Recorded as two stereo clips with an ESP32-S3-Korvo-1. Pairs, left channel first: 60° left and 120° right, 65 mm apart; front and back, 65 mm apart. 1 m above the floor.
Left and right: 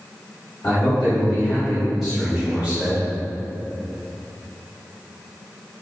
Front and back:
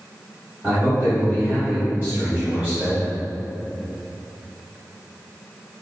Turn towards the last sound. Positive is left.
turn(degrees=-125)